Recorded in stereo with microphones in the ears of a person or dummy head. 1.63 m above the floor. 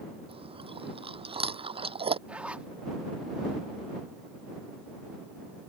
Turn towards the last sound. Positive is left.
turn(degrees=-10)  # may be behind; listen again after turning